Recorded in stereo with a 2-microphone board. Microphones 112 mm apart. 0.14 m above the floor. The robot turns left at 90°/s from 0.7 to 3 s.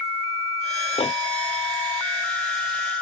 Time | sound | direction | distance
1.0 | a microwave | 65° left (ahead or behind) | ?